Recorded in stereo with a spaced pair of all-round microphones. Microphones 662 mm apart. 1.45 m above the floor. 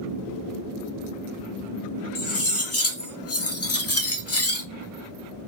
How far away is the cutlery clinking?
About 0.5 m.